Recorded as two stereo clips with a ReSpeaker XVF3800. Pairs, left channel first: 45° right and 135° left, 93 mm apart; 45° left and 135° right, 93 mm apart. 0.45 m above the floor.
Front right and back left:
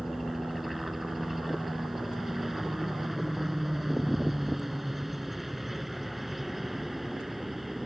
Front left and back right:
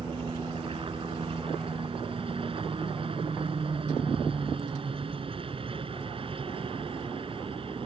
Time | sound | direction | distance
0.0 | a helicopter | 135° right | ?